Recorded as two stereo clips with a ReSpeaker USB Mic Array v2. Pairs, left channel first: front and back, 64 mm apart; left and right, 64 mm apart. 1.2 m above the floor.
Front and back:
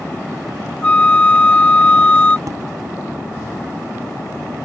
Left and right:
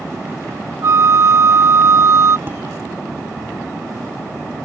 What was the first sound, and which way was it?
A flute, 65° right.